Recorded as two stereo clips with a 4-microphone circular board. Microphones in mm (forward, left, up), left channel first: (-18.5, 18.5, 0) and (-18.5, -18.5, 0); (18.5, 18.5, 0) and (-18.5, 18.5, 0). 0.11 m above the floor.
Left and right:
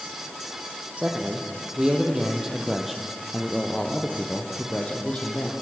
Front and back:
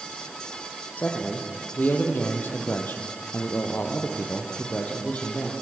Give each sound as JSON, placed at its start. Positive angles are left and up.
{"t": 1.0, "sound": "a man speaking", "azimuth_deg": -35, "distance_m": 5.0}